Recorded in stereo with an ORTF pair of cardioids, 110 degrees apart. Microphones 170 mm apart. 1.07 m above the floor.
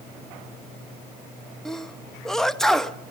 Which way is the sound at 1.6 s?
Straight ahead.